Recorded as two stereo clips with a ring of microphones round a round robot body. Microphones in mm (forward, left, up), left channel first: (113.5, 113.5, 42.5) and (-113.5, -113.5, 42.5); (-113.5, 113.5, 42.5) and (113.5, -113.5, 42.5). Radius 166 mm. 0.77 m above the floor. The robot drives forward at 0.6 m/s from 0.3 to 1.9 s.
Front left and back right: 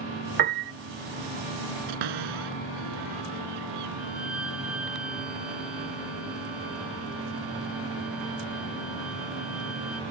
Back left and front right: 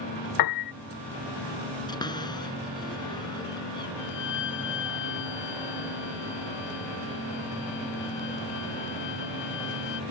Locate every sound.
0.4 s a piano: 165° left
1.9 s a cupboard door: 145° right
4.0 s a violin: 140° left